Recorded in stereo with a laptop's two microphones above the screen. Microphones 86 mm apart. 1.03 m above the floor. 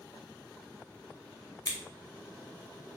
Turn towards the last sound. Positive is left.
turn(degrees=50)  # may be behind; listen again after turning